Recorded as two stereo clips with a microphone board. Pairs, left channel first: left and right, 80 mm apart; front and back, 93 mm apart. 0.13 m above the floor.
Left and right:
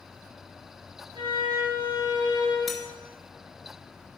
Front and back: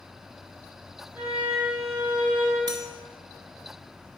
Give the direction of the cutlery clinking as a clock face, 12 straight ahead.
6 o'clock.